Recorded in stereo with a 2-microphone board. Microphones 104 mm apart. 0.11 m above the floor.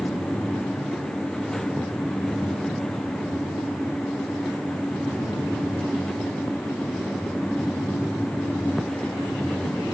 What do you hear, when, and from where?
Only background noise.